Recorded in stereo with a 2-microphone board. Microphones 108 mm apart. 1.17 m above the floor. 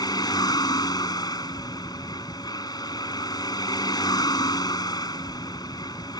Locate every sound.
0.0 s a vehicle: 40° left (ahead or behind)